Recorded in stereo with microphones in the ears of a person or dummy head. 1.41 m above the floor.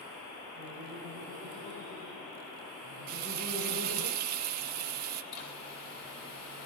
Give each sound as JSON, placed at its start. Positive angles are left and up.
{"t": 0.6, "sound": "laughter", "side_deg": 55, "distance_m": 6.5}
{"t": 3.1, "sound": "frying", "side_deg": -45, "distance_m": 1.9}
{"t": 5.3, "sound": "a zipper", "side_deg": 45, "distance_m": 7.0}